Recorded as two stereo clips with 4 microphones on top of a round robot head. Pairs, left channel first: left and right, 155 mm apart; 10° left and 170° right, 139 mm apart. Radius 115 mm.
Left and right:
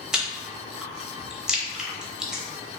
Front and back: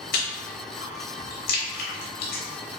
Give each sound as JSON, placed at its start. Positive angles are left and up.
{"t": 0.1, "sound": "chewing", "azimuth_deg": -5, "distance_m": 0.8}